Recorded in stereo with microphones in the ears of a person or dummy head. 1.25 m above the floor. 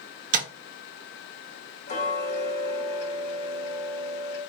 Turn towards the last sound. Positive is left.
turn(degrees=55)  # may be behind; listen again after turning